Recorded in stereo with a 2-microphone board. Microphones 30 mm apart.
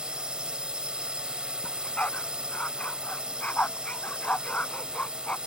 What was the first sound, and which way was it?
A drone, 25° right (ahead or behind).